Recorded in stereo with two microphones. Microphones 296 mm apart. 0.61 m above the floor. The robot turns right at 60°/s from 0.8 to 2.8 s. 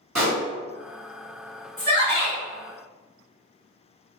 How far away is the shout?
About 1.6 m.